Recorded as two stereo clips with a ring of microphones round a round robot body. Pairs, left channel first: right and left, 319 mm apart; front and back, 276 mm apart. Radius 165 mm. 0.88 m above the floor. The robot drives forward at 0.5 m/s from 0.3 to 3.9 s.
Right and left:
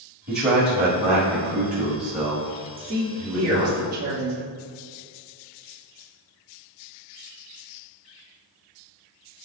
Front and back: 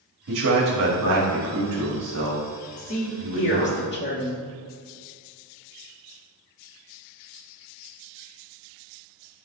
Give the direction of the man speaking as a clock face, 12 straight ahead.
7 o'clock.